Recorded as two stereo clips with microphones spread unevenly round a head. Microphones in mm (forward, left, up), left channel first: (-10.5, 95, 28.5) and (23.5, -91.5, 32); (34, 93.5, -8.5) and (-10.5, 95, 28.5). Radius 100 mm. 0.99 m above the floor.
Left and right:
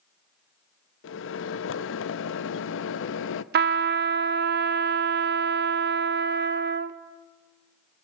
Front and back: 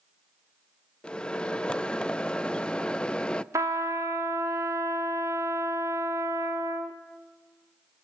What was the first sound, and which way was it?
A microwave, 70° left.